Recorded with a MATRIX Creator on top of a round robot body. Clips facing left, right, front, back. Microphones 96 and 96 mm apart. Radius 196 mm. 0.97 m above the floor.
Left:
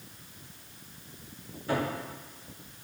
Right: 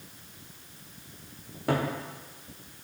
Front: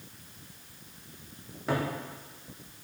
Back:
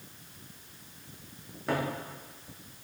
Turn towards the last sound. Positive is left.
turn(degrees=-90)